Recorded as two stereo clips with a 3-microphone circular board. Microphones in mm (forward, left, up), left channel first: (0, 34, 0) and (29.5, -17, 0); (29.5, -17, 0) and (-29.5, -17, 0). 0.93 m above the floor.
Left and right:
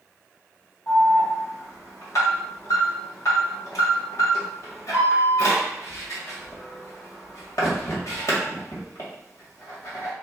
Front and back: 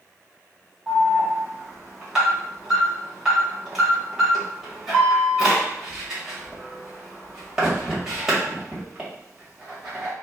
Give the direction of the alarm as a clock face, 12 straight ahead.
9 o'clock.